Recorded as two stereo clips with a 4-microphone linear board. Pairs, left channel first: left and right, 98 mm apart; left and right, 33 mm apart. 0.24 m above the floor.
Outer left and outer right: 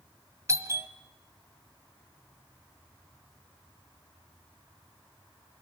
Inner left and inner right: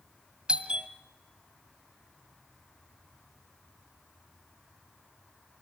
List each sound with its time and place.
0.5 s a doorbell: 30° right (ahead or behind), 1.6 m